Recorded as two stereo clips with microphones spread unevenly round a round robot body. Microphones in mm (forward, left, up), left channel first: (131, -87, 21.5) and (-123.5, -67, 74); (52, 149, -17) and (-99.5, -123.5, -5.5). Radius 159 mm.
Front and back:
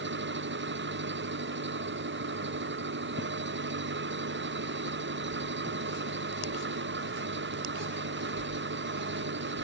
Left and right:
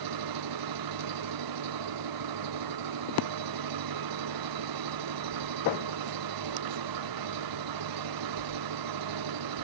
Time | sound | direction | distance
0.0 | an engine running | 140° right | ?